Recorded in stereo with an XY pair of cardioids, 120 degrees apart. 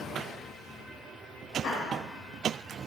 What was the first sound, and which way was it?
Laughter, 60° left.